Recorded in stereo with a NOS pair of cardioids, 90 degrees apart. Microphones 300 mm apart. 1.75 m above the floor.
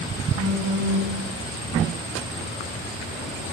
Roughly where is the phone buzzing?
Ahead right.